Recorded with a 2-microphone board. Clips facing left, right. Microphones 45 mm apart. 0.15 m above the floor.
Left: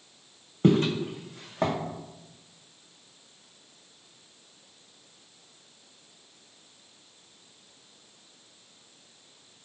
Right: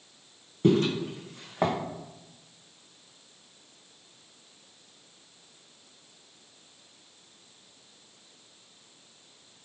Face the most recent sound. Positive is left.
turn(degrees=-15)  # may be behind; listen again after turning